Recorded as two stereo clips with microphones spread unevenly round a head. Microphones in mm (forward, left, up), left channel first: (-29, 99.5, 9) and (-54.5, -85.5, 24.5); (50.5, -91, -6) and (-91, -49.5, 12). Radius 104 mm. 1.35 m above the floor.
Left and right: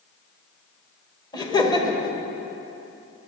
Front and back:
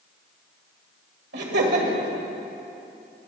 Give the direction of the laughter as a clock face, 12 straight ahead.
7 o'clock.